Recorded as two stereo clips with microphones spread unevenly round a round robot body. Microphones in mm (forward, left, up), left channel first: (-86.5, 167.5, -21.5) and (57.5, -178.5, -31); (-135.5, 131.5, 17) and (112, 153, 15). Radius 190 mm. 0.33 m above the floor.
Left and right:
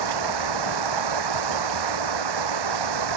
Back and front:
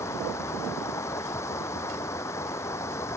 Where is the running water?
90° right.